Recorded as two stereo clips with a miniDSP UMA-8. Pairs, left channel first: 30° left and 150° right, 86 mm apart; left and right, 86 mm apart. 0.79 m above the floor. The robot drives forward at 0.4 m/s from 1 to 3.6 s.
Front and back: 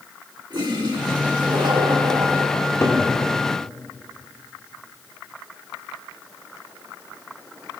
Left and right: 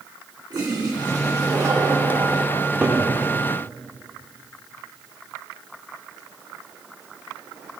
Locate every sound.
0.5 s a toilet flushing: 125° right, 2.5 m; by 2.5 s 135° right, 2.5 m
2.5 s a cupboard door: 15° right, 2.5 m; by 3.0 s 20° right, 2.5 m